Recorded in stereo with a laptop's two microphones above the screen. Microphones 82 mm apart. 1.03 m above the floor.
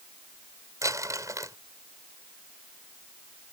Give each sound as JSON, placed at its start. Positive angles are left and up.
{"t": 0.8, "sound": "crumpling", "side_deg": -40}